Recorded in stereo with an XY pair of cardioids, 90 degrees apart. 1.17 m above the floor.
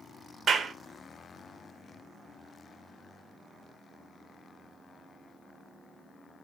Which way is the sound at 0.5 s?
50° right.